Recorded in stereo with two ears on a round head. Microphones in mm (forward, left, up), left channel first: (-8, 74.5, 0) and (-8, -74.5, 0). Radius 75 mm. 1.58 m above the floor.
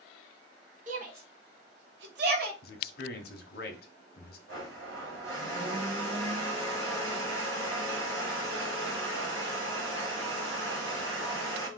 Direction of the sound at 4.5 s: 85° right.